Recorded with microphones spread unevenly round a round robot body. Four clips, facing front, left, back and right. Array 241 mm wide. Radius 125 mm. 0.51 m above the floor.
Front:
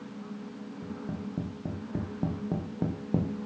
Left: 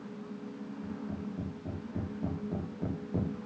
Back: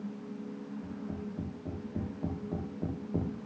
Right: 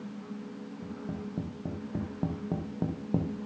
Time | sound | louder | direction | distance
0.8 | tapping | right 1 dB, front 6 dB | 35° right | 4.5 m